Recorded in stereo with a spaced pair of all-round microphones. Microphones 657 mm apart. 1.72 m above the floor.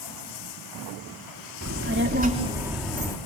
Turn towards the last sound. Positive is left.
turn(degrees=5)  # may be behind; listen again after turning